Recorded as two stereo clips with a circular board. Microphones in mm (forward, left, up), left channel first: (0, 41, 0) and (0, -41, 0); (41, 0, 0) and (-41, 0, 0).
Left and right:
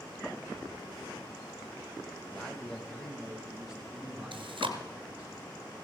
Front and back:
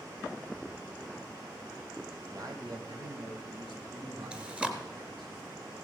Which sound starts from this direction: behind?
A man speaking, at 2.3 s.